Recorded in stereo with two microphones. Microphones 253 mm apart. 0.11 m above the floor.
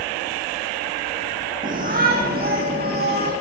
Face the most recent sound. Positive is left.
turn(degrees=-40)  # may be behind; listen again after turning